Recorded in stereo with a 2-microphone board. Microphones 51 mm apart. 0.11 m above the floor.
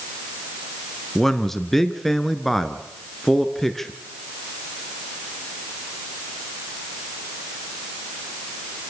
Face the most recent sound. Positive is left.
turn(degrees=5)  # may be behind; listen again after turning